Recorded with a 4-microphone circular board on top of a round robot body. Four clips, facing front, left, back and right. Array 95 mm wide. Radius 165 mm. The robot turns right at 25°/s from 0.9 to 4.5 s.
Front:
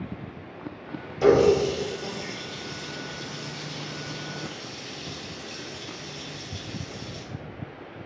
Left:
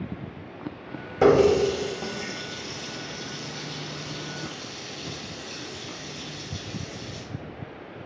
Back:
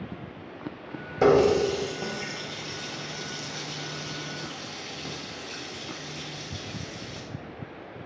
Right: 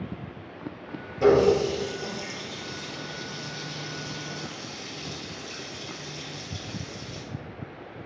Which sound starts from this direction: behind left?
A running tap, at 1.2 s.